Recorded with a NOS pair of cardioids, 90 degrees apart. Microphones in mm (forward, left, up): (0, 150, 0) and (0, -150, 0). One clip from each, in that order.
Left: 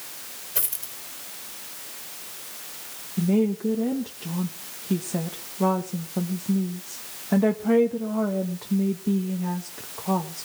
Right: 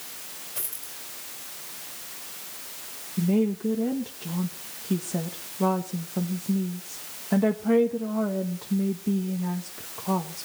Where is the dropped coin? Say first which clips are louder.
Left 8 dB; 45° left, 3 m.